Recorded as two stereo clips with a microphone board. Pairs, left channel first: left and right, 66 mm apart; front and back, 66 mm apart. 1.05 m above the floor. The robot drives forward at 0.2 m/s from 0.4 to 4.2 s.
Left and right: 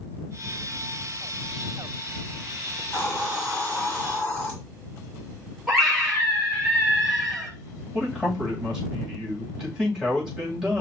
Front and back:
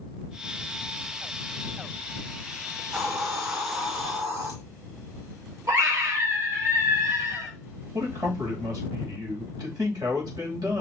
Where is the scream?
175° right, 4 m.